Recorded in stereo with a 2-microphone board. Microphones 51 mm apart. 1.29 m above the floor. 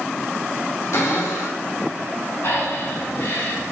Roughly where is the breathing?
Left.